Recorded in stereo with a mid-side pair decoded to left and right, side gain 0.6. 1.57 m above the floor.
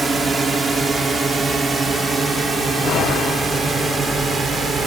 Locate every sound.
0.0 s a drone: 30° right